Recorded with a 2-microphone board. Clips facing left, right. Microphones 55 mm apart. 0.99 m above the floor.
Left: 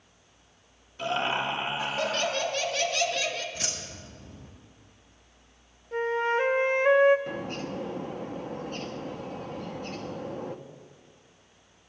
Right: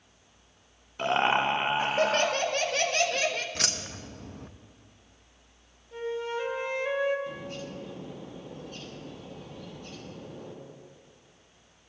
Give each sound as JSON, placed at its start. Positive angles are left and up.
{"t": 1.0, "sound": "laughter", "side_deg": -40, "distance_m": 1.2}
{"t": 3.5, "sound": "keys jangling", "side_deg": -70, "distance_m": 0.7}
{"t": 5.9, "sound": "a flute", "side_deg": 50, "distance_m": 0.7}
{"t": 7.3, "sound": "a bird", "side_deg": 50, "distance_m": 0.6}